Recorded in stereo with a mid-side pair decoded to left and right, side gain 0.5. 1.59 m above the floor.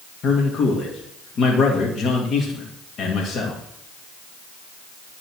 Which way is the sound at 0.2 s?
50° left.